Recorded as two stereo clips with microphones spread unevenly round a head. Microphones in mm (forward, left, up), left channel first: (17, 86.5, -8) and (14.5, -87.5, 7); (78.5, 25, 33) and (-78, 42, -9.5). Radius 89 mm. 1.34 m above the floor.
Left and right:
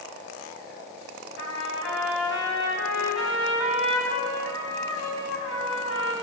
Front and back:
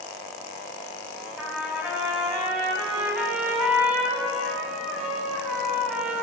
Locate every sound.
1.4 s a trumpet: 85° left, 4 m